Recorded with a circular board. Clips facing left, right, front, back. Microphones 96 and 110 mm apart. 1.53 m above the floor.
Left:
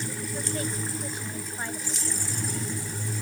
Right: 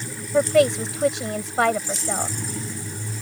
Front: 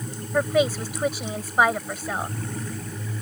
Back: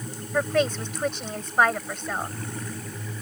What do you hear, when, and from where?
0.3 s a woman speaking: 85° right